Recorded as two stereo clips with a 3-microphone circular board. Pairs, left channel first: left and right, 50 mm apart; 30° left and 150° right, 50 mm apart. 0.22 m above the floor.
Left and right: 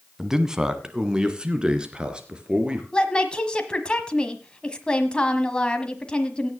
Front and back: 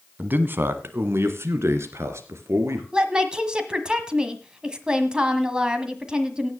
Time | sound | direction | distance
0.2 | a man speaking | 165° right | 1.2 m
2.9 | a woman speaking | 150° left | 1.3 m